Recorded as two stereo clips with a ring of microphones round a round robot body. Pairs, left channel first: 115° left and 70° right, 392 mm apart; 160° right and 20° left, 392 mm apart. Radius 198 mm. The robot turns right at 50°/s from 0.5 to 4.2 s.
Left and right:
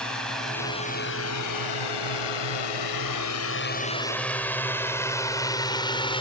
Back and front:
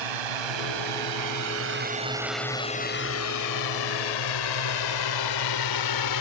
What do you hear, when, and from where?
0.0 s a drone: 25° left; by 6.2 s 175° right